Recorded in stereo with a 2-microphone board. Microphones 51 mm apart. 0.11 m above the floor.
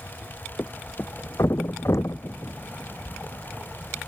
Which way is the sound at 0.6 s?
70° left (ahead or behind).